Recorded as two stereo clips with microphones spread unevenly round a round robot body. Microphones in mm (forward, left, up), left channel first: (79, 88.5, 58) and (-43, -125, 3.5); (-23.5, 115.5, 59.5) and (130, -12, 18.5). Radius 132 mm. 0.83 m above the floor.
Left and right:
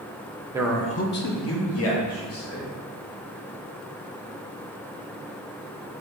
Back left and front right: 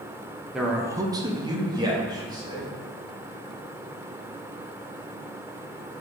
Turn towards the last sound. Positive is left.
turn(degrees=30)